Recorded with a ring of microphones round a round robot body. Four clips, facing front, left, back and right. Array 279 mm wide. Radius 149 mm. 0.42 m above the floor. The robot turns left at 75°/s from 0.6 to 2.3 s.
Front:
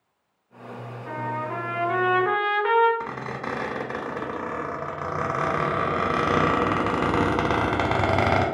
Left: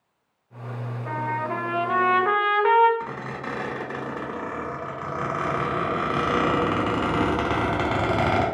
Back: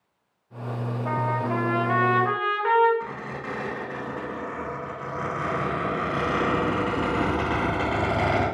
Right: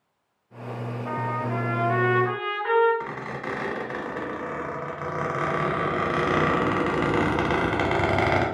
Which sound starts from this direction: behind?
A trumpet, at 1.1 s.